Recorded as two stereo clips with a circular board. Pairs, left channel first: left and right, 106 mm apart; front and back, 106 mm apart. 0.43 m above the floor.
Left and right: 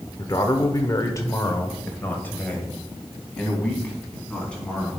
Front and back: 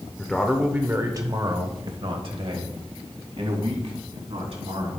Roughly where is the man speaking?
Left.